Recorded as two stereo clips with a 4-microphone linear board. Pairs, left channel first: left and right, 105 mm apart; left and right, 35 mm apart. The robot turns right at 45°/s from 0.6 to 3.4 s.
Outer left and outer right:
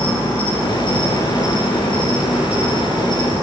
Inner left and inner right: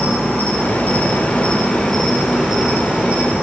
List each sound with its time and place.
0.0 s an insect: 110° left, 5.5 m; by 3.4 s 125° right, 5.5 m